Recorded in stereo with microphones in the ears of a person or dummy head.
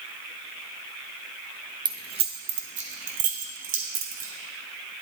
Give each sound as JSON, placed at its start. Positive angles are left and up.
{"t": 1.9, "sound": "keys jangling", "side_deg": -20, "distance_m": 0.7}